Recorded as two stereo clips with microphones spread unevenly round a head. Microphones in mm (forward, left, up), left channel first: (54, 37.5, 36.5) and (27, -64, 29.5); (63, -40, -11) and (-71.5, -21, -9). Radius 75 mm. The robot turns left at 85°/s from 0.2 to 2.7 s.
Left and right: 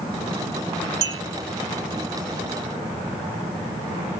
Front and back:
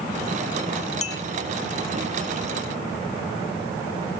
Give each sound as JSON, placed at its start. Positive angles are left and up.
{"t": 1.0, "sound": "a clink", "azimuth_deg": -50, "distance_m": 1.7}